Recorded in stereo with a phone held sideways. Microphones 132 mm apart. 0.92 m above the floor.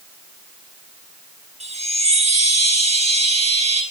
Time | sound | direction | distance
1.6 | a chime | 55° right (ahead or behind) | 7 m